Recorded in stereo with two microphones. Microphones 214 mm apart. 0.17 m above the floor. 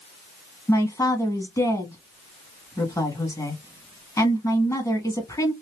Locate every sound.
0.7 s a man speaking: 15° left (ahead or behind), 1.4 m